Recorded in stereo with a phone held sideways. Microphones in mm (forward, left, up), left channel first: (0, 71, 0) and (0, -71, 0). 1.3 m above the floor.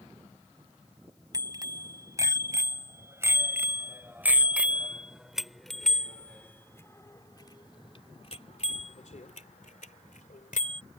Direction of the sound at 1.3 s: 30° right (ahead or behind).